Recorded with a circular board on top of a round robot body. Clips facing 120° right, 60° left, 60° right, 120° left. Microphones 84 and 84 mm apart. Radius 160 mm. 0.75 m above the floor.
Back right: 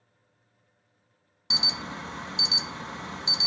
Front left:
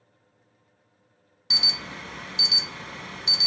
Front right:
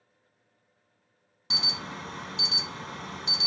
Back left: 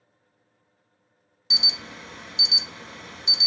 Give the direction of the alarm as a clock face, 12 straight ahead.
2 o'clock.